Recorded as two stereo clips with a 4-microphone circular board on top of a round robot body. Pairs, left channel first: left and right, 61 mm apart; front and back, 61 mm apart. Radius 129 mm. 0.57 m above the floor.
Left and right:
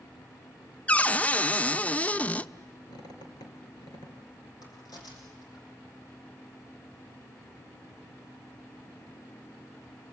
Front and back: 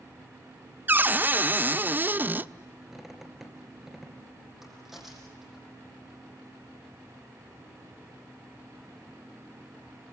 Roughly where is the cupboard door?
Behind left.